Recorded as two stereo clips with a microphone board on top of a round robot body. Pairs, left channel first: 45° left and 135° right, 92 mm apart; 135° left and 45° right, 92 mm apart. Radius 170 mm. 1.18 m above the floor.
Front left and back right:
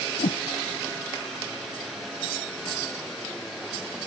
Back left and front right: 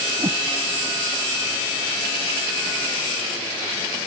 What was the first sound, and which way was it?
A whoosh, 15° left.